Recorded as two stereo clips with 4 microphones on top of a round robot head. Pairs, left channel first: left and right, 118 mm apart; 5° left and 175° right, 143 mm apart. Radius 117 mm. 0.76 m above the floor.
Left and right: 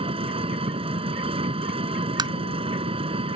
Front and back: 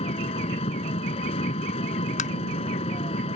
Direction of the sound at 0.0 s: 50° right.